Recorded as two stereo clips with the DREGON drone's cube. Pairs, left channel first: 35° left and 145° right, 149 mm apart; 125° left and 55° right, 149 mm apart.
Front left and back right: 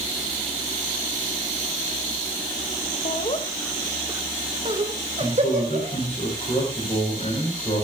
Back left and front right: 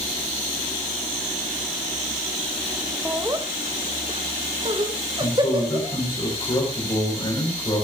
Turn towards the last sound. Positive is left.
turn(degrees=70)